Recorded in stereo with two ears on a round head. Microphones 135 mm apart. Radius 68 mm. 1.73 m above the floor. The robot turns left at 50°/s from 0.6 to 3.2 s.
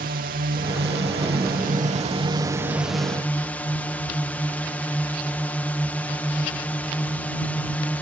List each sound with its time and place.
0.0 s a drone: 60° right; by 8.0 s 170° left